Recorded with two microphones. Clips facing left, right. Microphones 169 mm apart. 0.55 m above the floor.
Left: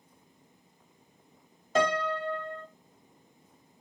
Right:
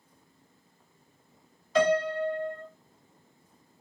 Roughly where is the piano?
Left.